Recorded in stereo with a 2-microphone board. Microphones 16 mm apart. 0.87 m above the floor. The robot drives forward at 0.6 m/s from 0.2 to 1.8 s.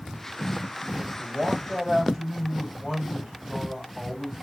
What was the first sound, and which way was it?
A man speaking, 75° right (ahead or behind).